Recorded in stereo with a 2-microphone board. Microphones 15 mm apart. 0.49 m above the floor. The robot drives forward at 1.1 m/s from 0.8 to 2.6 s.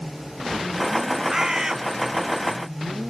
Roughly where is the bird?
Right.